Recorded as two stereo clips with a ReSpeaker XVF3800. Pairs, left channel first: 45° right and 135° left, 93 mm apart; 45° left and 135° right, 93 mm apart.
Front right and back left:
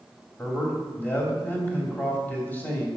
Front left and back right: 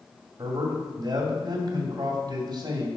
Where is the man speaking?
110° right, 2 m.